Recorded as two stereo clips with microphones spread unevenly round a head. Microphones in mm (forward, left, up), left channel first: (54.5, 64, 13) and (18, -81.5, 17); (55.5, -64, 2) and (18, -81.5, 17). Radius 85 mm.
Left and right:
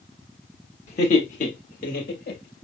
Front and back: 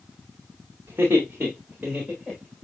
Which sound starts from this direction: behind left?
Laughter, at 0.9 s.